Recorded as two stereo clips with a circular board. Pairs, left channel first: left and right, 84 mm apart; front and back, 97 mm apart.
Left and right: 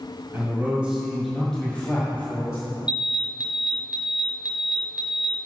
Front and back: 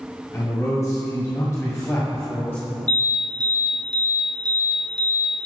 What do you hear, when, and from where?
0.3 s a man speaking: 40° right, 1.9 m; by 2.6 s 55° left, 2 m
2.9 s an alarm: 165° right, 2 m